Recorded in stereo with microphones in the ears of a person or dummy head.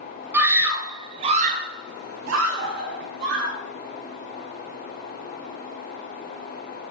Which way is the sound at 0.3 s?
10° right (ahead or behind).